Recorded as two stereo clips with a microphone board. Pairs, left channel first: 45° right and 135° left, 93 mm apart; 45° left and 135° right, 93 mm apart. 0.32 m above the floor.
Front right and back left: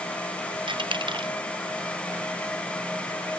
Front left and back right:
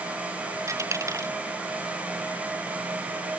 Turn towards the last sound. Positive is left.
turn(degrees=165)